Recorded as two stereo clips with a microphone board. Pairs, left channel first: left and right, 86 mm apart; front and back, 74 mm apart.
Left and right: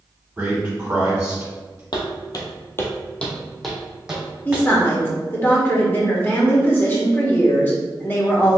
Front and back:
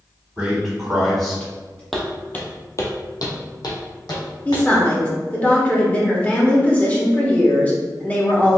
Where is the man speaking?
135° right, 1.2 m; by 1.8 s 45° right, 1.3 m.